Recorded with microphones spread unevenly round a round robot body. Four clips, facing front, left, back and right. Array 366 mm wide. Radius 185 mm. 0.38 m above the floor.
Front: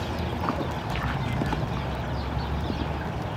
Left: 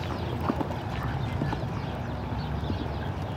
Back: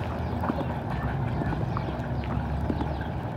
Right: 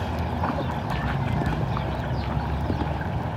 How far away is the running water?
About 5.5 m.